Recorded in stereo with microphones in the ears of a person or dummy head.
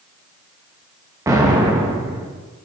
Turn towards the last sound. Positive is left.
turn(degrees=-15)  # may be behind; listen again after turning